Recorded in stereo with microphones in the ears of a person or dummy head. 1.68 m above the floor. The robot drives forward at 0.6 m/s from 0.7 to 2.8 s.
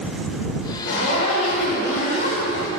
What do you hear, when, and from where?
0.8 s a zipper: 55° left (ahead or behind), 1.9 m; by 2.7 s 40° left (ahead or behind), 2.5 m